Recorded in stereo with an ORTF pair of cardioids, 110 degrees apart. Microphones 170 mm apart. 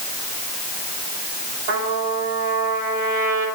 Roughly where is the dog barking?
No dog barking in this recording.